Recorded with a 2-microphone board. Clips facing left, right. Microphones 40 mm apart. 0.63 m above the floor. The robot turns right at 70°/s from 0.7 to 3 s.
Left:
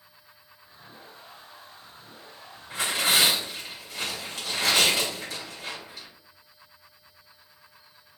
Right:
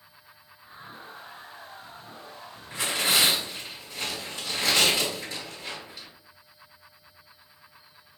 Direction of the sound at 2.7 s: 75° left (ahead or behind).